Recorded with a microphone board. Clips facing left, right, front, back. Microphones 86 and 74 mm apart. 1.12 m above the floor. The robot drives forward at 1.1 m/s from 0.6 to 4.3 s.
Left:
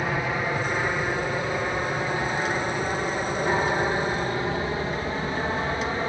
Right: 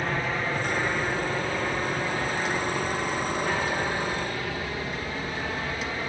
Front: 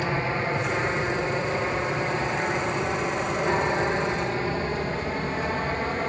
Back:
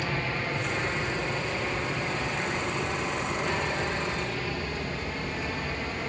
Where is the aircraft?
20° left; by 6.1 s 35° left.